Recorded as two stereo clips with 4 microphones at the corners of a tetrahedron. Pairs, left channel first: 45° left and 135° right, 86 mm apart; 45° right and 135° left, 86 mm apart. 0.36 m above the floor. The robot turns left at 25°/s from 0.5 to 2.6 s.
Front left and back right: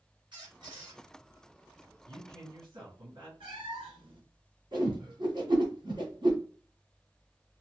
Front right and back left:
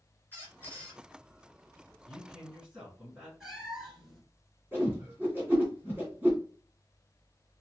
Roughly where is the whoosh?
Behind.